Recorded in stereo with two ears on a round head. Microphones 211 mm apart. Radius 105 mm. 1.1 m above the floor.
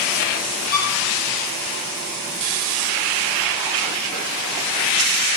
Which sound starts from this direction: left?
A violin, at 0.7 s.